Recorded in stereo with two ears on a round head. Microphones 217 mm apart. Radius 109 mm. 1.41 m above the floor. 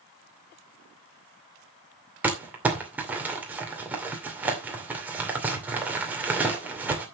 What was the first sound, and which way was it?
Crumpling, 5° right (ahead or behind).